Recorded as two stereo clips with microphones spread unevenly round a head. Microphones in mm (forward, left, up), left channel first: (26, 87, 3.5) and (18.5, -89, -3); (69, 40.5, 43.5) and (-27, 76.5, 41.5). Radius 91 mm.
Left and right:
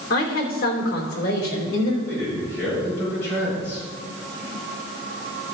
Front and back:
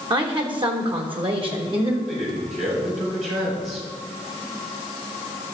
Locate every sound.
0.1 s a woman speaking: 130° left, 3 m
2.1 s a man speaking: 165° left, 5 m